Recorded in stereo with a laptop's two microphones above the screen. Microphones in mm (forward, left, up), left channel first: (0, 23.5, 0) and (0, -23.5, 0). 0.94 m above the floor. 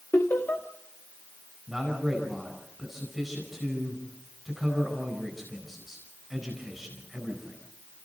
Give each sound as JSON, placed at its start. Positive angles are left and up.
{"t": 0.1, "sound": "laughter", "side_deg": 65, "distance_m": 1.8}
{"t": 1.7, "sound": "a man speaking", "side_deg": 0, "distance_m": 4.0}